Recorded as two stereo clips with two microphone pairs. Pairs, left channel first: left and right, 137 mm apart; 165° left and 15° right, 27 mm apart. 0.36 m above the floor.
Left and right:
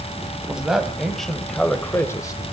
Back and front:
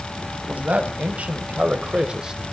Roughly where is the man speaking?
Ahead.